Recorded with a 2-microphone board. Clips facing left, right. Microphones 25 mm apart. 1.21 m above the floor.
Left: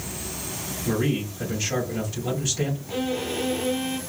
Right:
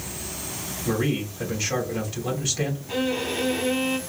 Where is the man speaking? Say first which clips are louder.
Even; 15° right (ahead or behind), 2.5 m.